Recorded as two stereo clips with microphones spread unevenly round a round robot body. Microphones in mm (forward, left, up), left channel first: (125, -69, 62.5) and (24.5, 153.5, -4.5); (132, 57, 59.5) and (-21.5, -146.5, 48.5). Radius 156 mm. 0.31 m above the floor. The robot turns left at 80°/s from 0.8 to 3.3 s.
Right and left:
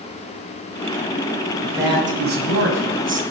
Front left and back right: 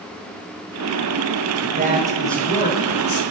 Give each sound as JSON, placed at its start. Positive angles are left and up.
{"t": 1.6, "sound": "a man speaking", "azimuth_deg": -165, "distance_m": 2.0}